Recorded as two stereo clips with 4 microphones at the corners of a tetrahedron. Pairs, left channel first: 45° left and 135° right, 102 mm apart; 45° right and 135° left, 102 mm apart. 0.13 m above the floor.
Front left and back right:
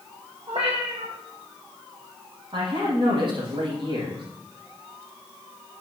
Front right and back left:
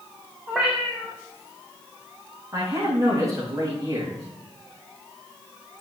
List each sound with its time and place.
0.5 s a cat meowing: 140° right, 3.5 m
2.5 s a man speaking: 165° right, 6.5 m